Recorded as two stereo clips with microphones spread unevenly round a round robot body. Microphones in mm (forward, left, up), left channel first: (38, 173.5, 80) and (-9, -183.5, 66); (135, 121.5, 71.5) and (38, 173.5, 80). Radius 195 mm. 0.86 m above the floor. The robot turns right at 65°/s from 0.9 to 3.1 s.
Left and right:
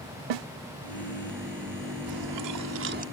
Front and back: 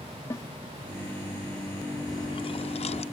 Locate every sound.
0.3 s a snare drum: 100° right
2.1 s chewing: 95° right; by 3.0 s 30° right